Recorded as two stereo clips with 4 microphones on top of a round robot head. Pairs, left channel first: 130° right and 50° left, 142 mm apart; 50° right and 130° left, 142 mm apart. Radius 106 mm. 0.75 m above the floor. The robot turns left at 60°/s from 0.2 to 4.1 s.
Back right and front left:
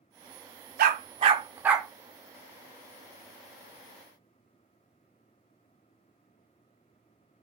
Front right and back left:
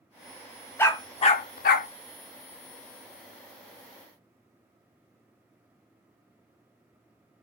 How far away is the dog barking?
About 0.5 m.